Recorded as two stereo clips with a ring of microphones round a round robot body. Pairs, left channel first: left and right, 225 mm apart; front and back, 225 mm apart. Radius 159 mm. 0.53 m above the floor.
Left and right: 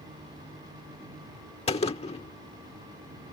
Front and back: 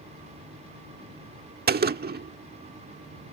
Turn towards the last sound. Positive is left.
turn(degrees=150)